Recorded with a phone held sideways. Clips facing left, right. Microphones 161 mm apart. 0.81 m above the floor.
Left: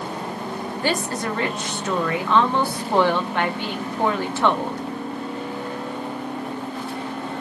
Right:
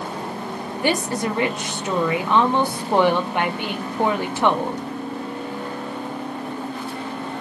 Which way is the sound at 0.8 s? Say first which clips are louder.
Right 3 dB; 15° right (ahead or behind).